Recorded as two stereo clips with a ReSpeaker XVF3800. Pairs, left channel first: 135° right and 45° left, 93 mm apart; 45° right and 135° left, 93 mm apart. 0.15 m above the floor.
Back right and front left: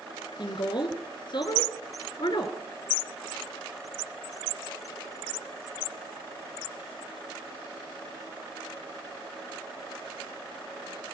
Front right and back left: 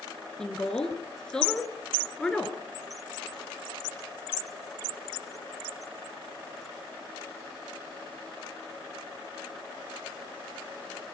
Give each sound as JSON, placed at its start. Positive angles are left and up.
{"t": 0.4, "sound": "a woman speaking", "azimuth_deg": -125, "distance_m": 2.0}